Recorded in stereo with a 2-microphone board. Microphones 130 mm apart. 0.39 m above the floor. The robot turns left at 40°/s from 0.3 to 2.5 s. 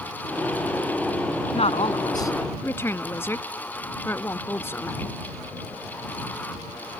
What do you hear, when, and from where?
1.5 s a woman speaking: 55° left; by 5.2 s 20° left